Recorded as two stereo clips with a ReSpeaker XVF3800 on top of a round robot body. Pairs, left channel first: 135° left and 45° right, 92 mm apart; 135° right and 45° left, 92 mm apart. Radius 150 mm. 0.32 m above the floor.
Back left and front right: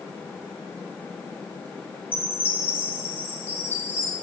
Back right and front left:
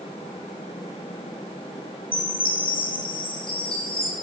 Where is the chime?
155° right, 2.5 m.